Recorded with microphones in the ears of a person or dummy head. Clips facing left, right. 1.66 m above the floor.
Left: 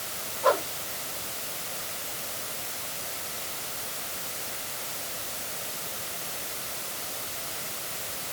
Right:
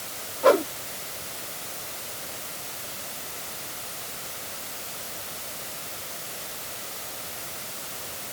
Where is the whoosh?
35° right (ahead or behind).